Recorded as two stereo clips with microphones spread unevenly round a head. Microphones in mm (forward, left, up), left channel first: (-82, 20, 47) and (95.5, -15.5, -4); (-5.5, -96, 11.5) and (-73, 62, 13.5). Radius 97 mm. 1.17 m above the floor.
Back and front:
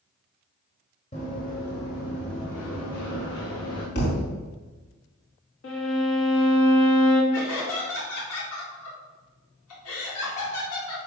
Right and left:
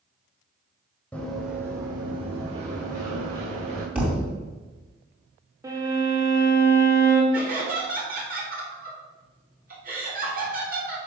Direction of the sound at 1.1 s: 150° right.